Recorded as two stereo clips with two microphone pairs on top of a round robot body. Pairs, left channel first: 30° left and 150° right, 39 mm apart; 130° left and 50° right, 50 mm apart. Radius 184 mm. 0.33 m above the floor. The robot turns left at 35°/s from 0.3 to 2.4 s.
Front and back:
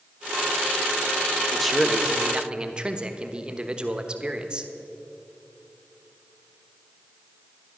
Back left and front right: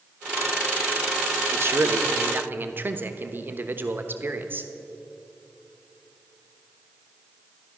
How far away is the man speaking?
About 1.2 m.